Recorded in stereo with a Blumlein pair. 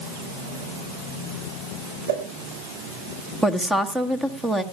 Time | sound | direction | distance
2.1 | a whoosh | 55° right | 6.5 m
3.4 | a woman speaking | 5° right | 1.4 m